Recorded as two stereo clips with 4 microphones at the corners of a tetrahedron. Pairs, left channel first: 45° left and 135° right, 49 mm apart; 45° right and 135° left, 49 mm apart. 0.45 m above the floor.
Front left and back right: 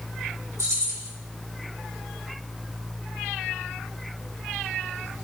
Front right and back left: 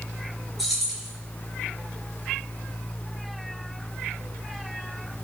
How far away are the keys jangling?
About 4.5 m.